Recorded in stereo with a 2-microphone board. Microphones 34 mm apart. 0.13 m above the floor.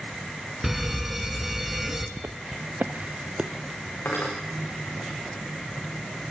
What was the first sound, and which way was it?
A fire alarm, 10° right (ahead or behind).